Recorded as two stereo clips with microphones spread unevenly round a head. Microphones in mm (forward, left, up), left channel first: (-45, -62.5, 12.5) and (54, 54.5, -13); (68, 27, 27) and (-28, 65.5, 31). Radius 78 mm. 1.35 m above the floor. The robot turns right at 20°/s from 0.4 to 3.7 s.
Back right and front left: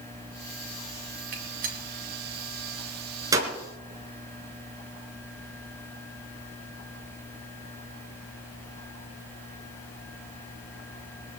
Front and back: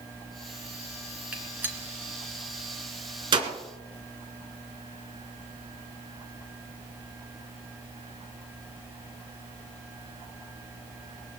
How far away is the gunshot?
About 3 m.